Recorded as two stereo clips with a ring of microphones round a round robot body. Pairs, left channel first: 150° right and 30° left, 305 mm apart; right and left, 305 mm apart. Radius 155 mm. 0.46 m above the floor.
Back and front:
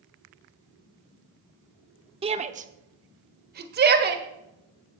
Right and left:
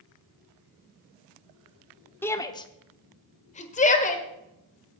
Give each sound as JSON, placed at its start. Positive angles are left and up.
{"t": 2.2, "sound": "a shout", "azimuth_deg": -15, "distance_m": 0.8}